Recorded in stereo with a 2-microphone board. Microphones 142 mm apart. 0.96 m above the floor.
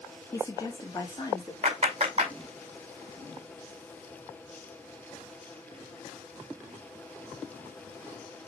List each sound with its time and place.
0.3 s a woman speaking: 25° left (ahead or behind), 1.9 m; by 1.5 s 30° left (ahead or behind), 2.5 m
1.6 s a clap: 45° right (ahead or behind), 5.5 m